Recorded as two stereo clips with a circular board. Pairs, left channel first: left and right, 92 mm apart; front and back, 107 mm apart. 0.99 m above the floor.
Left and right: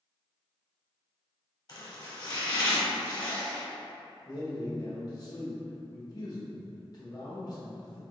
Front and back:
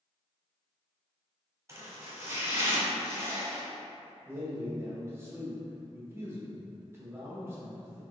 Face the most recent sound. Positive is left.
turn(degrees=120)